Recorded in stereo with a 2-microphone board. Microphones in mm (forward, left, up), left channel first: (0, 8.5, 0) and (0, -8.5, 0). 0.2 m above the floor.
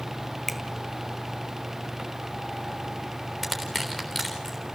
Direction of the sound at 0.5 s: 5° left (ahead or behind).